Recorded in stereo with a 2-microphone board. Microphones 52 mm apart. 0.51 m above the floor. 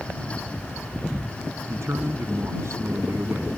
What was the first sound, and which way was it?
A man speaking, 60° right (ahead or behind).